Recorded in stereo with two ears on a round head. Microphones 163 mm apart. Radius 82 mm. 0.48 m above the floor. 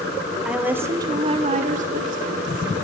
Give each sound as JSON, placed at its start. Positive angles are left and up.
{"t": 0.5, "sound": "a woman speaking", "side_deg": -5, "distance_m": 1.9}